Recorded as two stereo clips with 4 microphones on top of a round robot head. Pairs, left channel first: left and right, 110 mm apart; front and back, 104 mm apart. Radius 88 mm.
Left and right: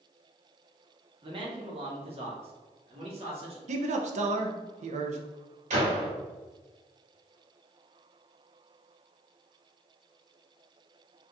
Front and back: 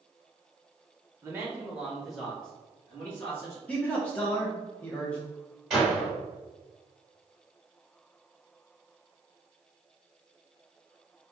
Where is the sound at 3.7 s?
80° right, 0.6 m.